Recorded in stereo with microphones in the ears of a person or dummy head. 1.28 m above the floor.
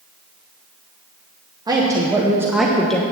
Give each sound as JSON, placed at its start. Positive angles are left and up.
{"t": 1.7, "sound": "a woman speaking", "side_deg": -15, "distance_m": 1.1}